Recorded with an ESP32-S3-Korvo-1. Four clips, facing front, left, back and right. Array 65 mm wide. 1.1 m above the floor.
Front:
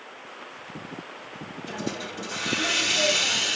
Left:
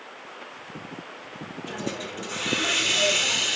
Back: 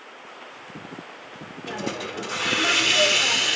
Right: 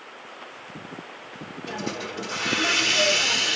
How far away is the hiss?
About 1.4 m.